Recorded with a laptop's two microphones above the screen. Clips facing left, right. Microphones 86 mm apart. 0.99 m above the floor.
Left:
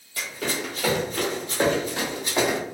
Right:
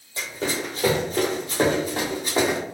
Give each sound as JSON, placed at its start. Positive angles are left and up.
{"t": 0.2, "sound": "running footsteps", "side_deg": -25, "distance_m": 1.2}